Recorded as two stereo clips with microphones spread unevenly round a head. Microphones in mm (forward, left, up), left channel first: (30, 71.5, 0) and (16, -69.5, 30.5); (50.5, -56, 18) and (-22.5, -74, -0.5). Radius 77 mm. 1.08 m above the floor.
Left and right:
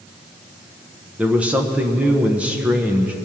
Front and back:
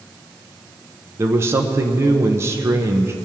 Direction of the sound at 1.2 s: 175° left.